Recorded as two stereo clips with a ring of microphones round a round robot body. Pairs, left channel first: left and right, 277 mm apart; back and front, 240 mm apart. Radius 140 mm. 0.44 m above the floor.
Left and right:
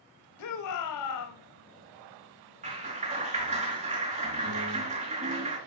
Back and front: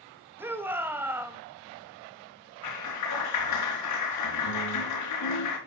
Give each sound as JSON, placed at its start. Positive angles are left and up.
{"t": 0.4, "sound": "a shout", "azimuth_deg": 80, "distance_m": 2.5}
{"t": 2.6, "sound": "a clap", "azimuth_deg": -155, "distance_m": 4.5}